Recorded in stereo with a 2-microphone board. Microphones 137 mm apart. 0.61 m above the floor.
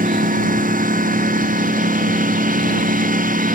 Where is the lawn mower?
90° right; by 3.6 s 85° right.